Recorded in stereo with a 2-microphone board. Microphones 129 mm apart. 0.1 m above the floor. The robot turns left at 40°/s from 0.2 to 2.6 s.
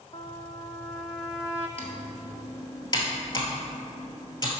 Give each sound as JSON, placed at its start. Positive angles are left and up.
{"t": 0.1, "sound": "a trumpet", "azimuth_deg": 45, "distance_m": 0.6}
{"t": 1.8, "sound": "typing on a keyboard", "side_deg": 50, "distance_m": 1.1}